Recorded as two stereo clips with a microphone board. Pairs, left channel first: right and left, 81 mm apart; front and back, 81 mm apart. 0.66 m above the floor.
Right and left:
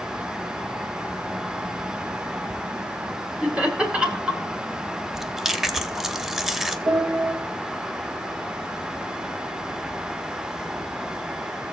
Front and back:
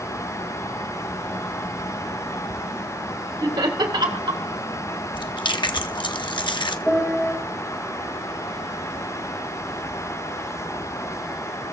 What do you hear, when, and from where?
3.4 s laughter: 165° left, 2 m
5.1 s chewing: 5° left, 0.7 m
6.9 s a piano: 80° left, 4.5 m